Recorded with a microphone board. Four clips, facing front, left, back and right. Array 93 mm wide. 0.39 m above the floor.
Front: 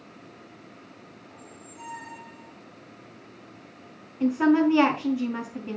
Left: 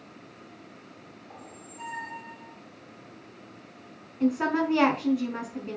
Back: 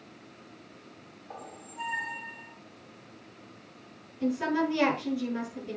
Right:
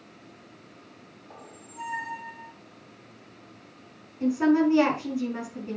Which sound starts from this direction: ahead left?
A woman speaking, at 4.2 s.